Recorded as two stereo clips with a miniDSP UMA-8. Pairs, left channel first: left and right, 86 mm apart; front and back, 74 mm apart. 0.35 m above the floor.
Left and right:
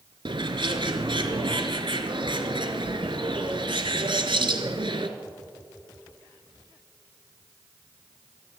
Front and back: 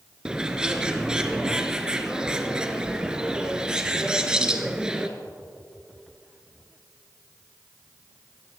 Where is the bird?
100° right, 1.1 m.